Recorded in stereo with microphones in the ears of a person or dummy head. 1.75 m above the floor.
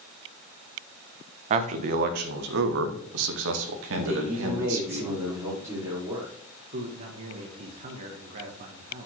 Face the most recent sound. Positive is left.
turn(degrees=-45)  # may be behind; listen again after turning